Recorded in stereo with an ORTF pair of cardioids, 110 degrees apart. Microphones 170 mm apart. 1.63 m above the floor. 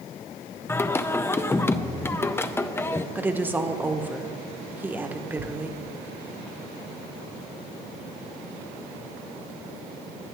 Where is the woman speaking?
10° right, 1.3 m.